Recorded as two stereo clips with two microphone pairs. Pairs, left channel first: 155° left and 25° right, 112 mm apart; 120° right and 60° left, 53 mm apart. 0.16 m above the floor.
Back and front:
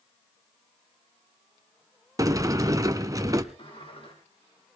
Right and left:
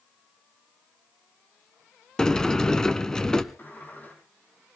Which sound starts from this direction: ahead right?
A sliding door, at 2.2 s.